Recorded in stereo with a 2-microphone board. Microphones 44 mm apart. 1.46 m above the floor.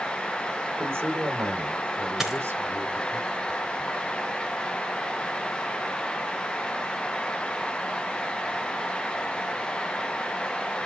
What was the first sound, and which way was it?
A man speaking, 70° right (ahead or behind).